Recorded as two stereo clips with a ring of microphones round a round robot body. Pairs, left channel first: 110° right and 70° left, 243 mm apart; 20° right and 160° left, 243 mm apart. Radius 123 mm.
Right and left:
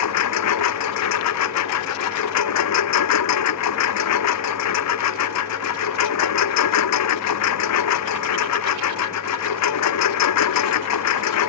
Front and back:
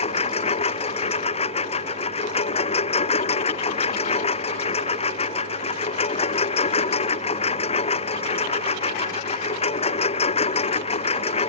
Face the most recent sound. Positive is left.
turn(degrees=-90)